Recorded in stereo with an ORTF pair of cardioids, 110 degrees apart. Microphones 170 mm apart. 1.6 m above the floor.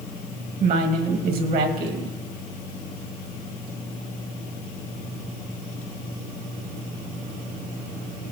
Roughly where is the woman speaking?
Ahead right.